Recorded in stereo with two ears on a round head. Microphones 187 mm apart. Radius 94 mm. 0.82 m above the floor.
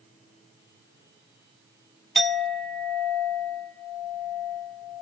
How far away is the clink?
About 1.4 m.